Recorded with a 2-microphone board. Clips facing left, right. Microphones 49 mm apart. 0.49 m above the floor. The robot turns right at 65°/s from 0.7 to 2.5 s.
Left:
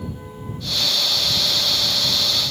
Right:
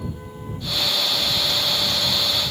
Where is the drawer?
No drawer in this recording.